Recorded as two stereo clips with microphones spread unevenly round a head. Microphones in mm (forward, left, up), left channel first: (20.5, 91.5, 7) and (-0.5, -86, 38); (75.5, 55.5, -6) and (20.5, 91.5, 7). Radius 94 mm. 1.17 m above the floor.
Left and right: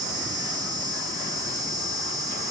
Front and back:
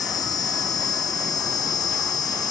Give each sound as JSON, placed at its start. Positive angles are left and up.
{"t": 0.0, "sound": "an insect", "azimuth_deg": -25}